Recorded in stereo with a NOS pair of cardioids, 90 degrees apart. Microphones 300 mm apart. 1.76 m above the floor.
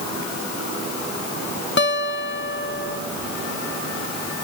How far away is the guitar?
About 1.7 m.